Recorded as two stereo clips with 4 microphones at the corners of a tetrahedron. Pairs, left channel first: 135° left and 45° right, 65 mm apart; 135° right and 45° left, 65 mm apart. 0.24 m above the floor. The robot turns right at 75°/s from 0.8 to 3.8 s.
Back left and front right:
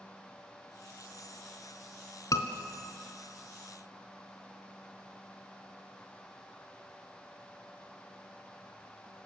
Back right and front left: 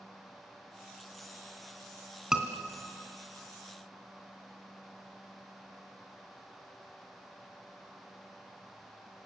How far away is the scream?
About 2.5 m.